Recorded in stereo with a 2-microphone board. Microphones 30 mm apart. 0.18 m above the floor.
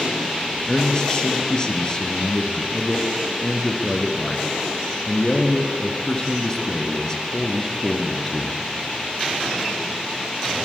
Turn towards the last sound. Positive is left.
turn(degrees=20)  # may be behind; listen again after turning